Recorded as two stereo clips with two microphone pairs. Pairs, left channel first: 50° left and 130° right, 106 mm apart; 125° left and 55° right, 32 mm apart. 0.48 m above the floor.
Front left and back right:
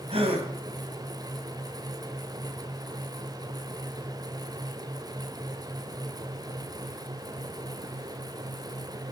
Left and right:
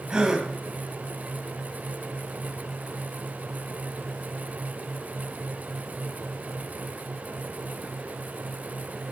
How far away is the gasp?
About 3 m.